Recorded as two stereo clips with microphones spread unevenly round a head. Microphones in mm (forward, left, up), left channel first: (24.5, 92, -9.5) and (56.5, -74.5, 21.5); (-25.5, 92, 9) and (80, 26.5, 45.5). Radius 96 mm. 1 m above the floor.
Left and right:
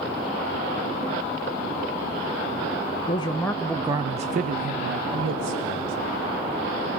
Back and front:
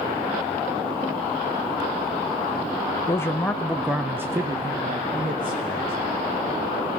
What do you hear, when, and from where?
3.1 s a man speaking: 120° left, 0.8 m; by 5.9 s 95° right, 1.7 m